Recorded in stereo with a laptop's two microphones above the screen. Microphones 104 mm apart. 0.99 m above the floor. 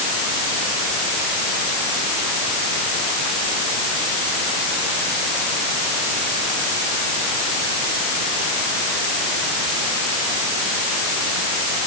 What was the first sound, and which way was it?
Only background noise.